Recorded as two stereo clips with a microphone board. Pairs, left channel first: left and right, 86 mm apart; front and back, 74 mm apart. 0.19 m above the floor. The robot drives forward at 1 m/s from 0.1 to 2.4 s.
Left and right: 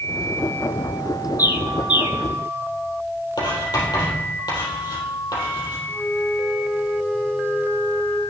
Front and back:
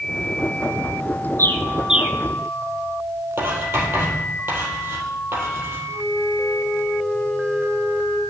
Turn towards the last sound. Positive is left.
turn(degrees=170)